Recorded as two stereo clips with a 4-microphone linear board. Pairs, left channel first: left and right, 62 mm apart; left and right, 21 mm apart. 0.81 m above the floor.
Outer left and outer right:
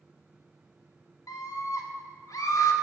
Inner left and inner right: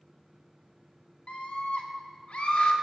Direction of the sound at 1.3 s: 70° left (ahead or behind).